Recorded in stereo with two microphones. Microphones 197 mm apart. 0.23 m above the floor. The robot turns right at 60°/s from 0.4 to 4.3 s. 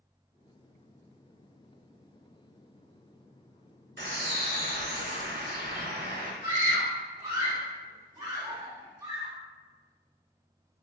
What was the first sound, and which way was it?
A bird, 75° right (ahead or behind).